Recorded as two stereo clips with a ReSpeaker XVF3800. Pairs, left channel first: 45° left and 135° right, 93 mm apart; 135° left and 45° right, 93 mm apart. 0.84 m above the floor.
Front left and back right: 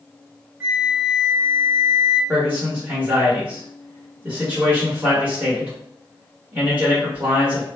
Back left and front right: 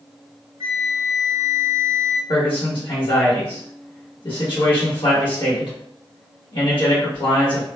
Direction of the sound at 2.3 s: 155° left.